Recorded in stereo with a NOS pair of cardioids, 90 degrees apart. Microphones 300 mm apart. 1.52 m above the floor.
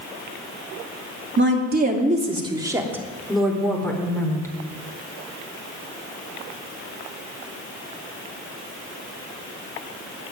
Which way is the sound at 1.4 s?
40° right.